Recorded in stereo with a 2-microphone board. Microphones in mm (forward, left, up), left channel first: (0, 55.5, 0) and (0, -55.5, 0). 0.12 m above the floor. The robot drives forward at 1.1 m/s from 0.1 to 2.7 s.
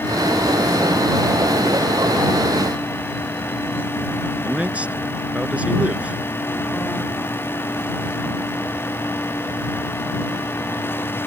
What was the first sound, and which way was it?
A man speaking, 10° right (ahead or behind).